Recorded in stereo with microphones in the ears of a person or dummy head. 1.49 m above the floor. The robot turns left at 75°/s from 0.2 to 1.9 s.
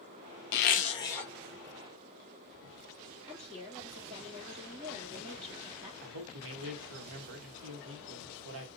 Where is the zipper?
60° left, 0.8 m; by 1.3 s straight ahead, 0.8 m.